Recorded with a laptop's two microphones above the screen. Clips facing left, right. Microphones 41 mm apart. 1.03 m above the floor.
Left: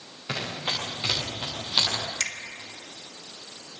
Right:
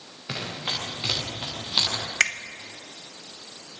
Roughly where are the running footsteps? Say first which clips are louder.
Left 1 dB; centre.